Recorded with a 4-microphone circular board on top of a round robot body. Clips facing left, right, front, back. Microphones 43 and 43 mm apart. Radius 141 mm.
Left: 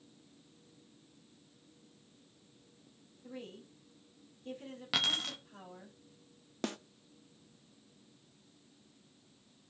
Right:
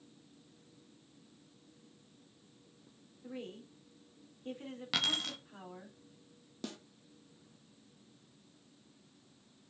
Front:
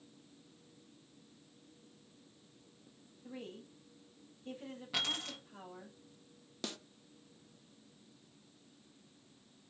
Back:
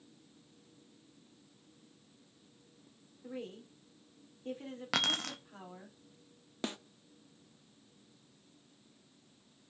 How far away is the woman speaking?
About 3.5 m.